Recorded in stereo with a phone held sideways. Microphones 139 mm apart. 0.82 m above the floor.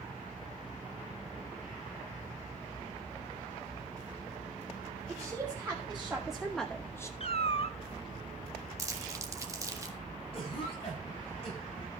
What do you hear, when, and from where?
5.1 s a woman speaking: 15° right (ahead or behind), 3 m; by 7.1 s 20° left (ahead or behind), 1.0 m
7.2 s a cat meowing: 45° left (ahead or behind), 0.8 m
8.8 s crumpling: 25° right (ahead or behind), 1.5 m
10.3 s a cough: 40° left (ahead or behind), 7 m